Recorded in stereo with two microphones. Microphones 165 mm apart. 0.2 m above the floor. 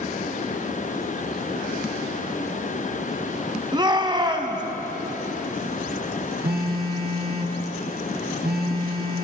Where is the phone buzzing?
80° right, 2.5 m.